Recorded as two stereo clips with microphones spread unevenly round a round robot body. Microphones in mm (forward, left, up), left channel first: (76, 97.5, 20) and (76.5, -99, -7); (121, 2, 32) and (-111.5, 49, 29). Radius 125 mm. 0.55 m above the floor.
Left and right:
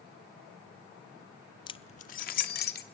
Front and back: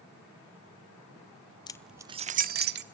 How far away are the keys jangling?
About 0.5 m.